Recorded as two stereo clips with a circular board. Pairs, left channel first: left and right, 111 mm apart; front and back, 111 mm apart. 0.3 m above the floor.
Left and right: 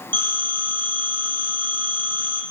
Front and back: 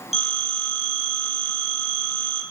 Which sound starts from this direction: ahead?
A phone ringing, at 0.1 s.